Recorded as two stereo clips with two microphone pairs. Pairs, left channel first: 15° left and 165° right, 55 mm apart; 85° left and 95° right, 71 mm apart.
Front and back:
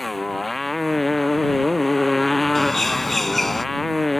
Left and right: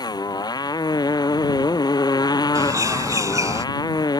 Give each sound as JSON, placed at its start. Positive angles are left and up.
{"t": 0.0, "sound": "a motorcycle", "azimuth_deg": 105}
{"t": 2.5, "sound": "a bird", "azimuth_deg": -70}